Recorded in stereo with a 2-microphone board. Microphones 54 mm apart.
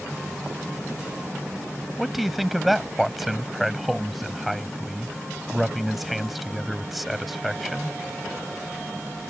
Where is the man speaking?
Centre (ahead or behind).